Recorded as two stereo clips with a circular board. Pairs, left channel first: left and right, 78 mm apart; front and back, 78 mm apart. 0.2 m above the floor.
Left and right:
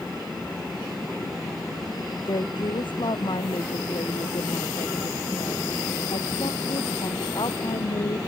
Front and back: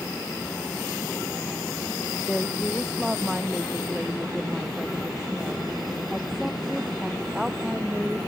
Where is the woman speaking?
95° left.